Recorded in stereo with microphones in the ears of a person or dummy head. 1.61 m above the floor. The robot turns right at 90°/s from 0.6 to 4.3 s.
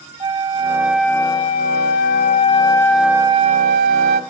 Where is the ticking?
I don't hear ticking.